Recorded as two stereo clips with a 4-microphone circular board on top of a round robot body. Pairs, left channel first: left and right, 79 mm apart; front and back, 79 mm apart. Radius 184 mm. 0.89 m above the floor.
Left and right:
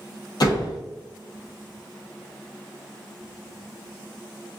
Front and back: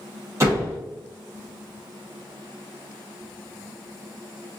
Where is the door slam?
125° left, 1.3 m.